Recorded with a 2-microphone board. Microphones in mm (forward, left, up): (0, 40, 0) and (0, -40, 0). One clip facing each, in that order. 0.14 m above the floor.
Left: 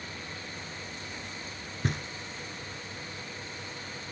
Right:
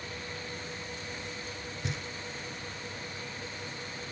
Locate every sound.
1.8 s knocking: 50° left (ahead or behind), 1.2 m